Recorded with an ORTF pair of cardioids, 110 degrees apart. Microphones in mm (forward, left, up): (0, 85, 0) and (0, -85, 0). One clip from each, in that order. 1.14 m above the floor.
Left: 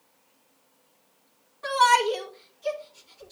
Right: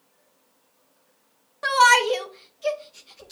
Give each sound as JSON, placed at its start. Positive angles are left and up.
{"t": 1.6, "sound": "a shout", "azimuth_deg": -70, "distance_m": 1.5}